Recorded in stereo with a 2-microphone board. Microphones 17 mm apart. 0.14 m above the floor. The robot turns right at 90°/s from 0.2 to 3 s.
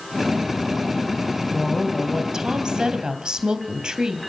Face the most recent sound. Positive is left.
turn(degrees=-75)